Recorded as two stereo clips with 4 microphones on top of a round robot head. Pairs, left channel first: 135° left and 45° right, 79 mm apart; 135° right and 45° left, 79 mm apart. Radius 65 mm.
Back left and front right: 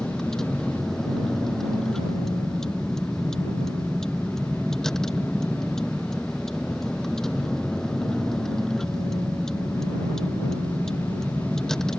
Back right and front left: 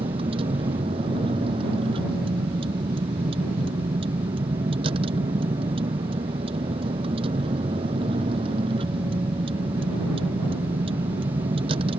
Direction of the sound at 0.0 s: 45° left.